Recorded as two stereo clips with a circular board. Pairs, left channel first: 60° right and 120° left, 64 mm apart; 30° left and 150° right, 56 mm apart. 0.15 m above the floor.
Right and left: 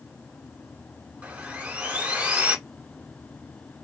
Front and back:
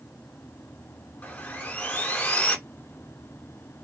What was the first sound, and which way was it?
Sawing, 70° left.